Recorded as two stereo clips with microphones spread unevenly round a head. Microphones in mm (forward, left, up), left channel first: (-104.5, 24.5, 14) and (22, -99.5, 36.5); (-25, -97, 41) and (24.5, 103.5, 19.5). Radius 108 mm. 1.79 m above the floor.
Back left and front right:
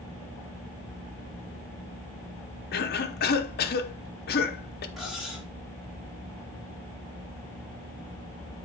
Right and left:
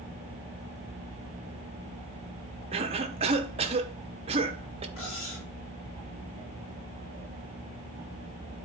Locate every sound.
2.7 s a cough: 135° left, 0.8 m
5.0 s cutlery clinking: 130° right, 3 m